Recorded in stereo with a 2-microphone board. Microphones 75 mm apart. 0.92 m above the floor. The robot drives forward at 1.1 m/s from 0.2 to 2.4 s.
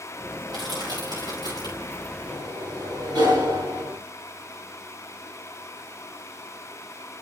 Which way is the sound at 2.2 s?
60° right (ahead or behind).